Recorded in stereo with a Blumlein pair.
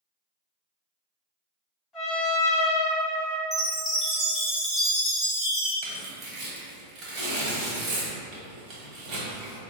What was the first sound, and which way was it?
A trumpet, 25° left.